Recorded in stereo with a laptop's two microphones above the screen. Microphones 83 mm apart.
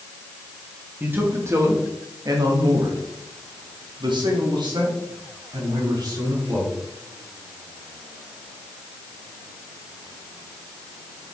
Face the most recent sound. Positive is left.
turn(degrees=-60)  # may be behind; listen again after turning